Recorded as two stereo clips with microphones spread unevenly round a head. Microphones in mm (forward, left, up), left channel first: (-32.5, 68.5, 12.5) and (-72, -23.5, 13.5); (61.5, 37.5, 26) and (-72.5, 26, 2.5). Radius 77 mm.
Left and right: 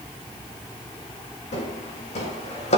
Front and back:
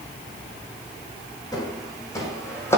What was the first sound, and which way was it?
Footsteps, 65° left.